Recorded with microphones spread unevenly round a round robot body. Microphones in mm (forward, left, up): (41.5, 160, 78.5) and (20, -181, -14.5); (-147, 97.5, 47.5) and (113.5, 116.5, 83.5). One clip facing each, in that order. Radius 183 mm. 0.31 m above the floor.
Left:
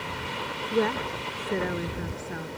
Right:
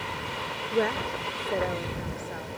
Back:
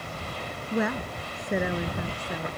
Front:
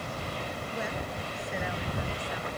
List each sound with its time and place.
0.7 s a woman speaking: 165° left; by 2.5 s 145° left